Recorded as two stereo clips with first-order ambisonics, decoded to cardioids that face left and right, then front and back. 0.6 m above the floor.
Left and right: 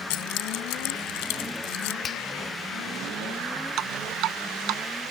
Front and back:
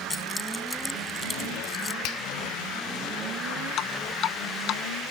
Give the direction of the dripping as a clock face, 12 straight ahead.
2 o'clock.